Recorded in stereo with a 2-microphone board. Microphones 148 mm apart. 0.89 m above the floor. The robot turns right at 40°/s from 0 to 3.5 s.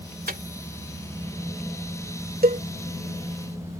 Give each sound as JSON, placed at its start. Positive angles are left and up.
{"t": 0.3, "sound": "a microwave", "side_deg": -80}
{"t": 2.4, "sound": "a cowbell", "side_deg": -85}